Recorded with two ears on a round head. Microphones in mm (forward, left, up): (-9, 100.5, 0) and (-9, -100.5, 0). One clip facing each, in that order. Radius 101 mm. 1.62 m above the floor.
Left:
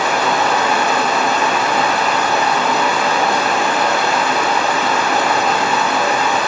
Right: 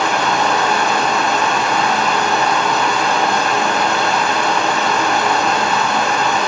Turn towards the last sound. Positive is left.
turn(degrees=5)  # may be behind; listen again after turning